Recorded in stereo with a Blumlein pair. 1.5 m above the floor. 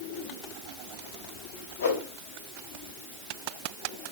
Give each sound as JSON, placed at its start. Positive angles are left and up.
{"t": 1.8, "sound": "a whoosh", "azimuth_deg": 65, "distance_m": 3.0}